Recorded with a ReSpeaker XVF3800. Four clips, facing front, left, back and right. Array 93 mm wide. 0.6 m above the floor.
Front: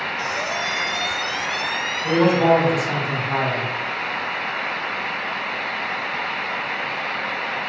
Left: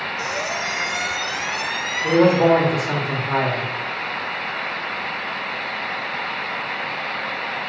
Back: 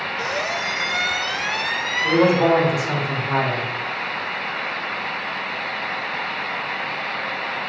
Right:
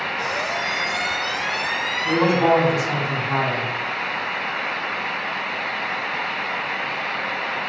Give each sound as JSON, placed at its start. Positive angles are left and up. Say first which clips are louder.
{"t": 0.2, "sound": "a squeak", "louder": "even, back 2 dB", "azimuth_deg": 165, "distance_m": 1.1}
{"t": 2.0, "sound": "a man speaking", "louder": "left 3 dB, even", "azimuth_deg": 115, "distance_m": 2.0}